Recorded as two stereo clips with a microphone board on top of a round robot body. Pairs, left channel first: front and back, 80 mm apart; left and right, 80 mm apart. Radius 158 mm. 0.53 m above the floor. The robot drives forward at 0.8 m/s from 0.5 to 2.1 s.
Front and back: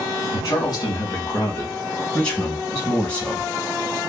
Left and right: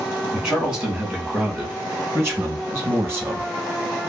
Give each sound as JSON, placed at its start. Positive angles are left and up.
{"t": 0.3, "sound": "a man speaking", "azimuth_deg": -20, "distance_m": 2.0}